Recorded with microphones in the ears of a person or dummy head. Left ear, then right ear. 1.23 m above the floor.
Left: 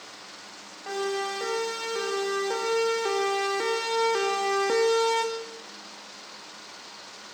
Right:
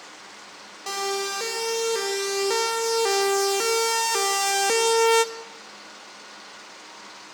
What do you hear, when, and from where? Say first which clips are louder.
0.9 s a siren: right 2 dB; 80° right, 6.5 m; by 5.3 s 40° right (ahead or behind), 1.6 m